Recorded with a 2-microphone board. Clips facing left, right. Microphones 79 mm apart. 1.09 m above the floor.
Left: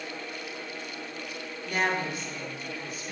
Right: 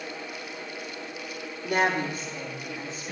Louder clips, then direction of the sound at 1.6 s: Right 3 dB; 60° right (ahead or behind).